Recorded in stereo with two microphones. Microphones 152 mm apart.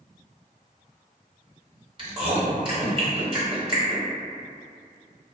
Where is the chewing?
35° right (ahead or behind), 1.1 m.